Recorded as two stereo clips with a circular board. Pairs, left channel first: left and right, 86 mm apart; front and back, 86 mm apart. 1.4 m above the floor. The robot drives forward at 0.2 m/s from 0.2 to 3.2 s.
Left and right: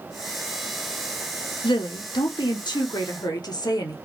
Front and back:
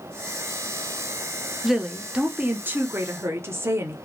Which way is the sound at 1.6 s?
95° left.